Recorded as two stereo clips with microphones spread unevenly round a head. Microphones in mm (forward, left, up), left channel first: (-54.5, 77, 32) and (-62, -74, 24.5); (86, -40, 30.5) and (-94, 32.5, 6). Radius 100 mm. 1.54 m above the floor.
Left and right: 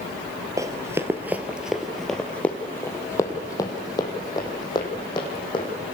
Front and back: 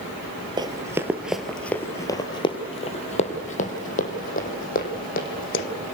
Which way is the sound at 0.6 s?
145° right.